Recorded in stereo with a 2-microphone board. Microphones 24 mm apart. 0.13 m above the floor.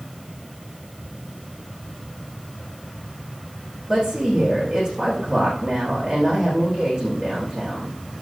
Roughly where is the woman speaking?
Right.